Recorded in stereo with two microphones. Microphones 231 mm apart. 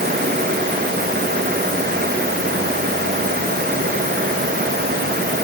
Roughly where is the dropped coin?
I don't hear a dropped coin.